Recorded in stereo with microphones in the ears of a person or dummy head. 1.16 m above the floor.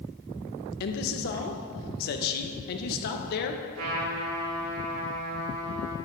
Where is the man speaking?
55° left (ahead or behind), 0.7 m.